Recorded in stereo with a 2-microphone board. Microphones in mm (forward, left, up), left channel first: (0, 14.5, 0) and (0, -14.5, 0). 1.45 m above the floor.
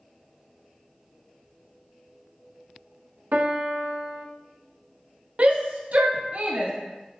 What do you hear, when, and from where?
3.3 s a piano: 75° right (ahead or behind), 0.5 m
5.4 s a shout: 55° right (ahead or behind), 0.6 m